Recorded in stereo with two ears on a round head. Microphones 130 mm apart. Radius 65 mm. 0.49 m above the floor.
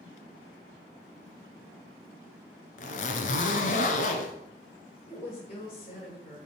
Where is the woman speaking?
40° left (ahead or behind), 6 m.